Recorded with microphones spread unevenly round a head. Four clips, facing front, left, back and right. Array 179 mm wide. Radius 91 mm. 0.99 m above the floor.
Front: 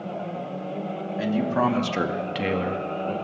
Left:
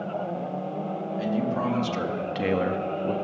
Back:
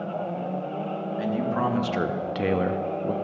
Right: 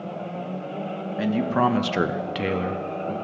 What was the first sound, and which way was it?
A man speaking, 60° right.